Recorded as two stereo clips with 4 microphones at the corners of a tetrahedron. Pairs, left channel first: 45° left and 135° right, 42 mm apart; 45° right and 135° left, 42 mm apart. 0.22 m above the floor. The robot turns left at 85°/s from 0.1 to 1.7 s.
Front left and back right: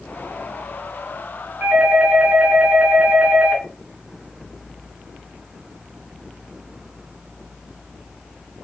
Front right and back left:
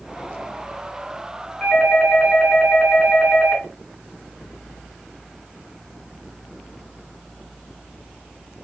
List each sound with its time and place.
1.6 s a doorbell: 115° right, 2.5 m; by 3.6 s 120° right, 2.5 m